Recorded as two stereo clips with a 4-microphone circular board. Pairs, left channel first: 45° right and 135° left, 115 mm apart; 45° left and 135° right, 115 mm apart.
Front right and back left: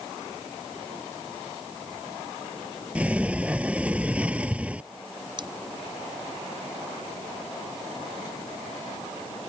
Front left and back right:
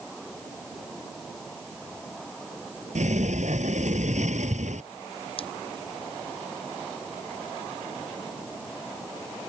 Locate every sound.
3.0 s a sliding door: 145° right
5.4 s scissors: 85° left